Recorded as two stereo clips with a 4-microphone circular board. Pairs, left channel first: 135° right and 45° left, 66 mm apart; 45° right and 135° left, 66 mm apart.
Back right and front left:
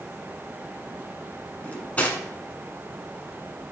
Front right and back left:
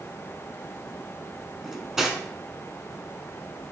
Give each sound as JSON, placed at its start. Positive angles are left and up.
{"t": 1.6, "sound": "cutlery clinking", "azimuth_deg": -150, "distance_m": 0.7}